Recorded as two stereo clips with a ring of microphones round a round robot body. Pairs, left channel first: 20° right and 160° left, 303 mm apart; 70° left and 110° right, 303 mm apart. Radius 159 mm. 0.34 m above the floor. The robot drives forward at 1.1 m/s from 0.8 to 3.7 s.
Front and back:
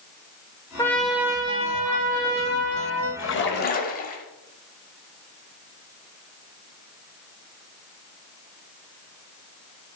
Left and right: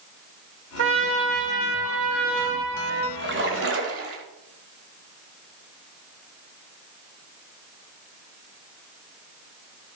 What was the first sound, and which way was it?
A trumpet, 100° right.